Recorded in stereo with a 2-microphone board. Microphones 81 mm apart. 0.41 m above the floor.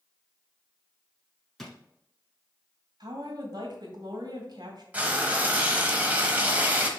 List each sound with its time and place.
1.6 s a drawer: 5° left (ahead or behind), 1.2 m
3.0 s a woman speaking: 60° right (ahead or behind), 2 m
4.9 s frying: 20° right (ahead or behind), 1.0 m